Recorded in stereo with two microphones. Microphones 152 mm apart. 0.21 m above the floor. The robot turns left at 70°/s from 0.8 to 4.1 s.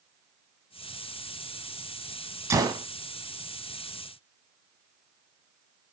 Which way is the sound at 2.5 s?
20° right (ahead or behind).